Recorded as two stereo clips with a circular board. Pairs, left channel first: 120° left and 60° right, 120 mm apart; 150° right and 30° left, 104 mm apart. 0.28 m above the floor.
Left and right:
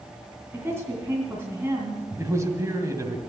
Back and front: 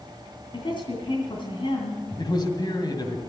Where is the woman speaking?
125° right, 2.5 m.